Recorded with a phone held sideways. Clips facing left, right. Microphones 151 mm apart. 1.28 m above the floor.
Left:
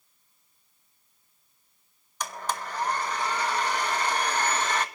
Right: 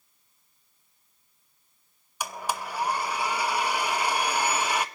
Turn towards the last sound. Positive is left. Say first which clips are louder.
# right 1 dB
turn(degrees=-10)  # may be behind; listen again after turning